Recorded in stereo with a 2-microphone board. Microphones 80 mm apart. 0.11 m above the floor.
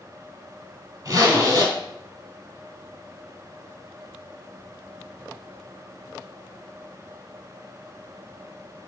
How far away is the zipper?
About 1.9 m.